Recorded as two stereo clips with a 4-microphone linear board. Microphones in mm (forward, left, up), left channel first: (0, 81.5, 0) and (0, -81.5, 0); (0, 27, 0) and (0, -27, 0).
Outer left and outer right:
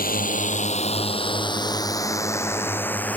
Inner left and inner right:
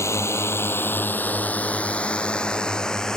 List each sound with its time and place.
0.0 s a drone: 55° left (ahead or behind); by 3.2 s 10° left (ahead or behind)